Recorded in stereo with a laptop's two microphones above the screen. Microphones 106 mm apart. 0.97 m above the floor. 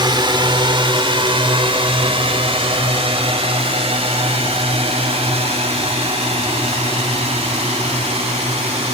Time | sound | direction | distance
0.0 | a drone | 45° right (ahead or behind) | ?